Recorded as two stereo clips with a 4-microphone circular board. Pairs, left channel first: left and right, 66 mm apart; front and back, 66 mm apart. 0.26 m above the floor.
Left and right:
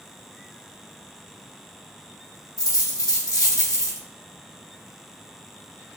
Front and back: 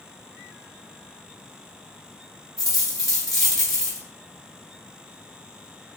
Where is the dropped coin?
90° left, 1.3 m.